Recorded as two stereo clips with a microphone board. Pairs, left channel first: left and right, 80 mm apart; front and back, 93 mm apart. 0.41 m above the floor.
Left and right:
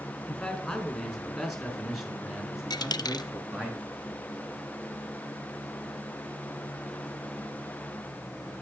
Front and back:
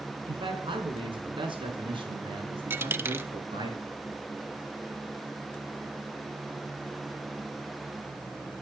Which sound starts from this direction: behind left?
A dropped coin, at 2.7 s.